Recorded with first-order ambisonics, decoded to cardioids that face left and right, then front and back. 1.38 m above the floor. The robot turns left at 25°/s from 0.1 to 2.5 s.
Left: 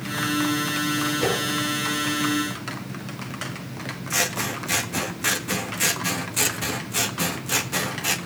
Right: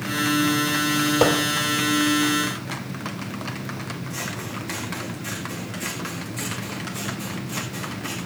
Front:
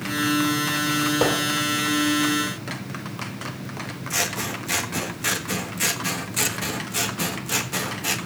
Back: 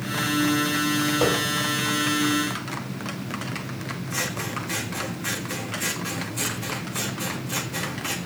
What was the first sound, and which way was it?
Hammering, 70° right.